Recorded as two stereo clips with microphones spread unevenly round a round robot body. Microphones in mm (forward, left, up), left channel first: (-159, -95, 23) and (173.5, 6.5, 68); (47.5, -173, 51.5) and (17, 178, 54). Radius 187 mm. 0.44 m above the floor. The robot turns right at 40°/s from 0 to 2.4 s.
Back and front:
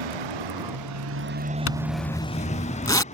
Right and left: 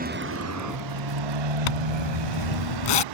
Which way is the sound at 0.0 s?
30° left.